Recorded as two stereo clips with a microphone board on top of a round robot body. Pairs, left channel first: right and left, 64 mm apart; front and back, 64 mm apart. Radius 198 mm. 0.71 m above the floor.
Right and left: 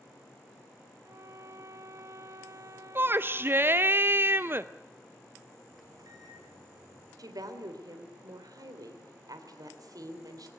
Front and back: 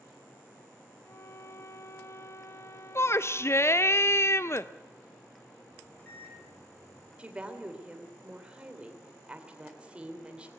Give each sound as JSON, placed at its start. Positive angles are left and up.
{"t": 1.0, "sound": "a violin", "azimuth_deg": 50, "distance_m": 0.7}
{"t": 3.0, "sound": "a shout", "azimuth_deg": 40, "distance_m": 0.7}
{"t": 5.7, "sound": "a microwave", "azimuth_deg": 70, "distance_m": 7.0}
{"t": 7.2, "sound": "a woman speaking", "azimuth_deg": 110, "distance_m": 3.0}